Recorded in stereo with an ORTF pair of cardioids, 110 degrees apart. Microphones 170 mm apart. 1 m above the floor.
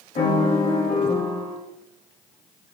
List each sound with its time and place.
0.1 s a piano: 40° left, 0.9 m